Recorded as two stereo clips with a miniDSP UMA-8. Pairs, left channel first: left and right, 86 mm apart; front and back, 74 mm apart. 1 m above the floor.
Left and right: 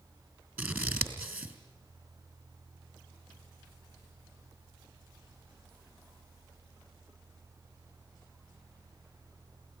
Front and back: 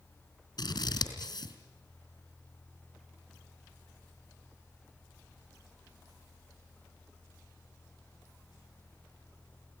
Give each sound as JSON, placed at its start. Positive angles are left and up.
{"t": 0.6, "sound": "scissors", "azimuth_deg": -25, "distance_m": 3.5}